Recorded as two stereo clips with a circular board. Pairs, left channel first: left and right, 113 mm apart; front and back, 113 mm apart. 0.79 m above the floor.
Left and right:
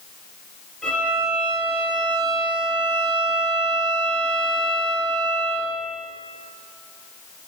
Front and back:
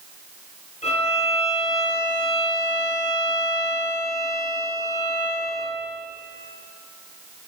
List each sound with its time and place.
0.8 s a violin: 5° left, 3.5 m